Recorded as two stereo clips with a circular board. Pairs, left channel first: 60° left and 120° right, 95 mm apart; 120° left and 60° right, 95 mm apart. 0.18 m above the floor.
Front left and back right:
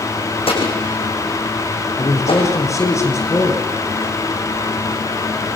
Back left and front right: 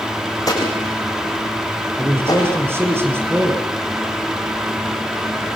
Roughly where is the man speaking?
Ahead.